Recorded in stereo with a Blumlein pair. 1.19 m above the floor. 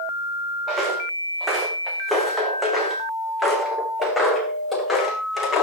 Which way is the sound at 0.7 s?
15° right.